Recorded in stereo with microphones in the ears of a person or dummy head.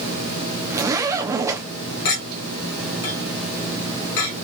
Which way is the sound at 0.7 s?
15° right (ahead or behind).